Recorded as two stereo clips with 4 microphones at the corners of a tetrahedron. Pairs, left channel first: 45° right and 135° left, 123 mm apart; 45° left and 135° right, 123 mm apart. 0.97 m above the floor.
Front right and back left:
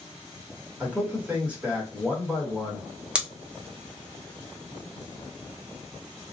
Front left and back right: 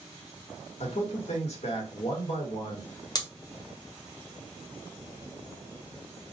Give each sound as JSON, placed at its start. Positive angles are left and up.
{"t": 0.8, "sound": "a man speaking", "azimuth_deg": 60, "distance_m": 1.2}
{"t": 3.1, "sound": "scissors", "azimuth_deg": 60, "distance_m": 0.7}